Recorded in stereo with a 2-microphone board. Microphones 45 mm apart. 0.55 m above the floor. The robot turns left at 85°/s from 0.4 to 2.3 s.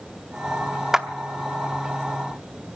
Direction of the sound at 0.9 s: 15° right (ahead or behind).